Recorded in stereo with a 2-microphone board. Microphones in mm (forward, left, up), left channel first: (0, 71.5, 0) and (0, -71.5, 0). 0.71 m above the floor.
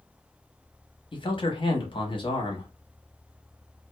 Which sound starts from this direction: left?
A man speaking, at 1.1 s.